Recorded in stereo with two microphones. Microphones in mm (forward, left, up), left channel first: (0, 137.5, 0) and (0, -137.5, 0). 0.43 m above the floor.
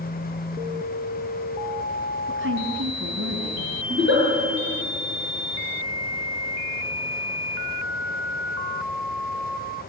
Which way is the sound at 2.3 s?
50° right (ahead or behind).